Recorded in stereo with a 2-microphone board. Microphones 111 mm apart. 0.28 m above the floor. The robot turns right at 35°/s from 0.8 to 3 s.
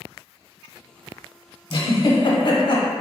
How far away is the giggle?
About 0.8 m.